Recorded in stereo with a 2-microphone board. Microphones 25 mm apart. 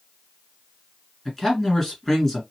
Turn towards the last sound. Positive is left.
turn(degrees=10)  # may be behind; listen again after turning